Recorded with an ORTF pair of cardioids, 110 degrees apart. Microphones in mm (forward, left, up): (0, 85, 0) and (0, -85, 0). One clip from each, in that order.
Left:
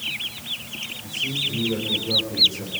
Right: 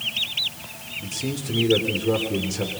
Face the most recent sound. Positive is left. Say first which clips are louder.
# left 7 dB
turn(degrees=-60)